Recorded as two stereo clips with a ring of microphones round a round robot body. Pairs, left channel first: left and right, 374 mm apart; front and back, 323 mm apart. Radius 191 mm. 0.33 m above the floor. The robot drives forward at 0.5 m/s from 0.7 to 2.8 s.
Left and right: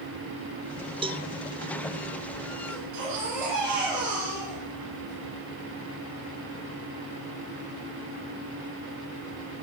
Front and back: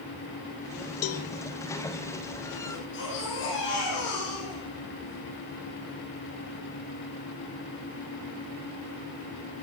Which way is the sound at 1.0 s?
20° right.